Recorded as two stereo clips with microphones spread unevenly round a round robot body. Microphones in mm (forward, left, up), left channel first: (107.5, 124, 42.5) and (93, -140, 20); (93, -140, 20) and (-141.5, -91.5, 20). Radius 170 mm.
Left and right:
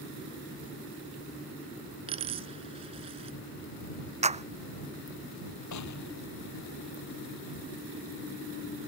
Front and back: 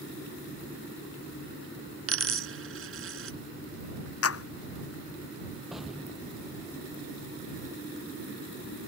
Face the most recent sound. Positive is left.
turn(degrees=80)